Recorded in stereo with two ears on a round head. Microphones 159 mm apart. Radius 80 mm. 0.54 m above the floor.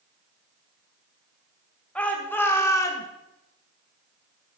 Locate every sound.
1.9 s a shout: 10° left (ahead or behind), 2.5 m; by 3.1 s 20° left (ahead or behind), 1.8 m